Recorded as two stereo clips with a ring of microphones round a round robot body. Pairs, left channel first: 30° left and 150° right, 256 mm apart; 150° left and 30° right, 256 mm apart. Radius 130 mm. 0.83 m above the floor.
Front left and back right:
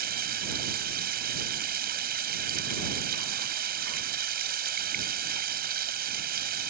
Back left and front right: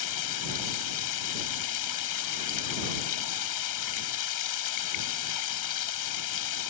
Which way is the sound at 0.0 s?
155° left.